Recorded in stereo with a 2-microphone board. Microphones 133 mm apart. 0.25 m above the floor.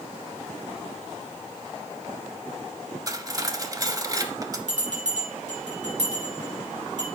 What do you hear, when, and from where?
3.1 s cutlery clinking: 30° right (ahead or behind), 0.6 m
4.7 s a bell: 70° right (ahead or behind), 2.5 m